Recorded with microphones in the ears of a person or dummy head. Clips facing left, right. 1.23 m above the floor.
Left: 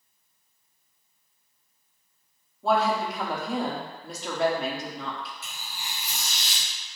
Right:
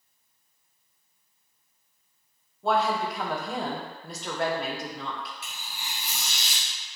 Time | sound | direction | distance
2.6 | a woman speaking | centre (ahead or behind) | 0.5 m
5.4 | tearing paper | 55° right (ahead or behind) | 1.4 m